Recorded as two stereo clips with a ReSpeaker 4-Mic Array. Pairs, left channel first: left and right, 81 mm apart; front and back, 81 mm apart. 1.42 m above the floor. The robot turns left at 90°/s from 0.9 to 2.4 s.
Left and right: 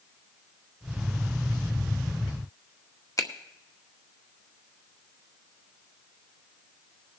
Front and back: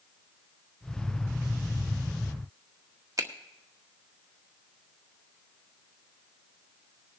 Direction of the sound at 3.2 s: 135° left.